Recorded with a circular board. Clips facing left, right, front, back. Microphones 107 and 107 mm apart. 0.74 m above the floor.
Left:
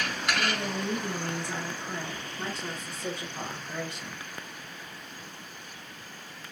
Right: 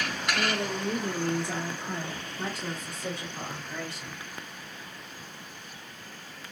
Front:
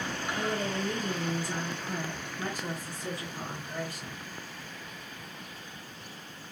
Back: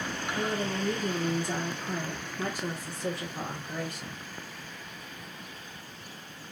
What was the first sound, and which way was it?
A woman speaking, 135° right.